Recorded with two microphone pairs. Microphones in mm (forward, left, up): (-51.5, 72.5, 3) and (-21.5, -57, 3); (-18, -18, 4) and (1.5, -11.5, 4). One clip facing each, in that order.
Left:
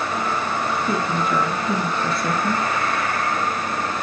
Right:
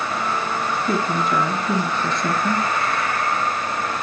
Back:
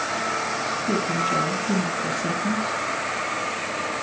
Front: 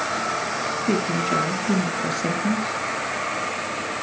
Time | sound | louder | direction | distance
0.9 | a man speaking | right 3 dB, front 1 dB | 20° left | 2.5 m